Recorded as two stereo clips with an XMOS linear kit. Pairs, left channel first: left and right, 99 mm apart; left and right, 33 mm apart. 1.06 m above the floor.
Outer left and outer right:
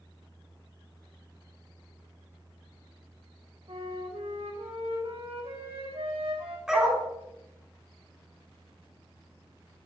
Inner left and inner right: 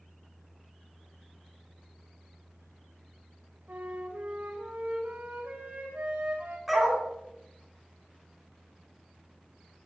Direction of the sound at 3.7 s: 75° right (ahead or behind).